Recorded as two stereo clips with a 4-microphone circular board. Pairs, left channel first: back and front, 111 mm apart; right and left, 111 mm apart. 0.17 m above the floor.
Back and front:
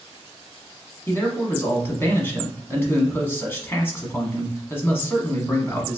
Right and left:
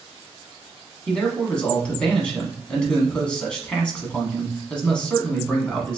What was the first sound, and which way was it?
A man speaking, 155° right.